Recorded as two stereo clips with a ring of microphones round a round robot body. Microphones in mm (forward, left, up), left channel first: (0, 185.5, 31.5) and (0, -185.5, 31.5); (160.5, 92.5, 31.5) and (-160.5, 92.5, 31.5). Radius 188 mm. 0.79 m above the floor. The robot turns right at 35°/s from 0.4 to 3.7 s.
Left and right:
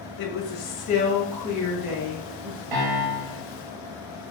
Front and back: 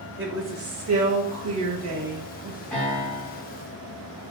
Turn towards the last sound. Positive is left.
turn(degrees=-50)